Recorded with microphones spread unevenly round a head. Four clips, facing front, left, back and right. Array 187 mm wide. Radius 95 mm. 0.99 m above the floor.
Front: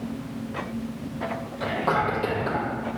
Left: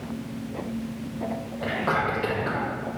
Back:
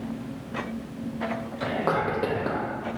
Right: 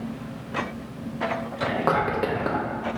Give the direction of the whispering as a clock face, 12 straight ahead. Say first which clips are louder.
Right 2 dB, front 1 dB; 3 o'clock.